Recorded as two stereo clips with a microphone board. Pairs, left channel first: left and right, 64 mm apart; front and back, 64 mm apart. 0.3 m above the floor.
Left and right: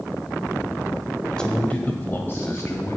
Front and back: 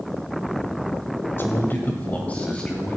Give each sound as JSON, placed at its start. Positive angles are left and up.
{"t": 1.4, "sound": "a man speaking", "azimuth_deg": 20, "distance_m": 1.5}